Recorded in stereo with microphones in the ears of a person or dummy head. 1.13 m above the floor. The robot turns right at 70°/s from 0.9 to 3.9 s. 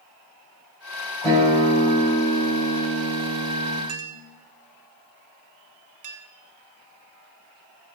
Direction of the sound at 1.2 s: 155° left.